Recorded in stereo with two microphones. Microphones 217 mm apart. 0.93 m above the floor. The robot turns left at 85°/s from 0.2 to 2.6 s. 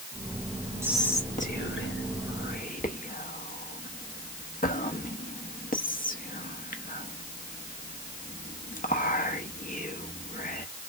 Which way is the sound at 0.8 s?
10° right (ahead or behind).